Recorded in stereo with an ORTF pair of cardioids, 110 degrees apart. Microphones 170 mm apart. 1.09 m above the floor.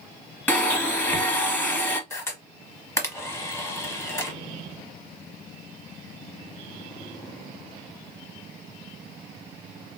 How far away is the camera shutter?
About 1.0 m.